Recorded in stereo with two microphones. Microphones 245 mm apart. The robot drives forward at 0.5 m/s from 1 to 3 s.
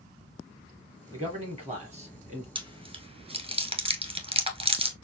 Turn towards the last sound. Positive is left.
turn(degrees=-25)  # may be behind; listen again after turning